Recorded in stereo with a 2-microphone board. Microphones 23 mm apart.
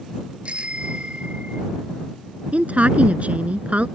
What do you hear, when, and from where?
0.5 s a bicycle bell: 50° right (ahead or behind)
2.5 s a woman speaking: 65° right (ahead or behind)